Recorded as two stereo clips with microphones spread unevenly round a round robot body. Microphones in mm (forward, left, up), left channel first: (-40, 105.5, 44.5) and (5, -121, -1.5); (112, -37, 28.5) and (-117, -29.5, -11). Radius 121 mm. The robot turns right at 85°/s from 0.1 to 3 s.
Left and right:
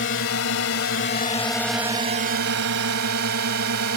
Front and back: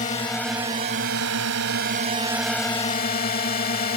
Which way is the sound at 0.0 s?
60° left.